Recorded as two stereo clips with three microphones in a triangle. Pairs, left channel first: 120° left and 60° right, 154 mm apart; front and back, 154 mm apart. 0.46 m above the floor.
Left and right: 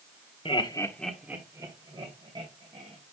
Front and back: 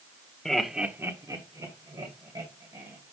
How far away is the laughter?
About 1.1 m.